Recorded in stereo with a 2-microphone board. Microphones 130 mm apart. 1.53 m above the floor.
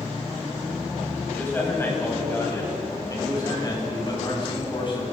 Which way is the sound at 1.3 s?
15° left (ahead or behind).